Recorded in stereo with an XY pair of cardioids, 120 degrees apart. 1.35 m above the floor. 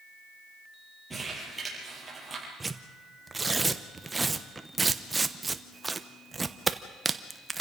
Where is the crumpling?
10° right, 7.5 m.